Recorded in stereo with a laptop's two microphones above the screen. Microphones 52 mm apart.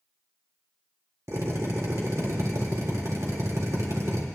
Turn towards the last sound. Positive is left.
turn(degrees=-65)  # may be behind; listen again after turning